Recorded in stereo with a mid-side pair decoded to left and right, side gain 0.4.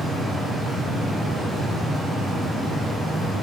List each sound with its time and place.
0.0 s a fan: 60° right, 0.9 m